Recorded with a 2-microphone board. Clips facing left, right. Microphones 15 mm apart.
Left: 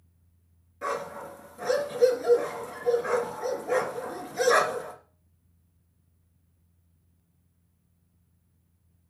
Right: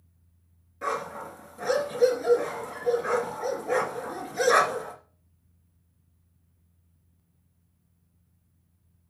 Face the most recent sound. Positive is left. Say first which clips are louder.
# right 1 dB
turn(degrees=-5)  # may be behind; listen again after turning